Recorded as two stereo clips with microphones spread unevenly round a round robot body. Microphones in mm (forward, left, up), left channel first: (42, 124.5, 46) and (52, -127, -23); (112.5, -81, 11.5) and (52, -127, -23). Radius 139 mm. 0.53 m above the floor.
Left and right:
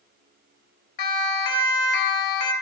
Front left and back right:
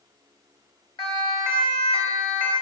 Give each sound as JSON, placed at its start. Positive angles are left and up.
{"t": 1.0, "sound": "a siren", "azimuth_deg": 110, "distance_m": 2.5}